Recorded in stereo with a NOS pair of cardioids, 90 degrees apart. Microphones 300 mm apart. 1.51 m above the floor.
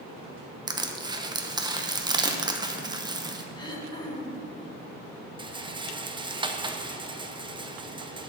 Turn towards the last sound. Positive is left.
turn(degrees=-15)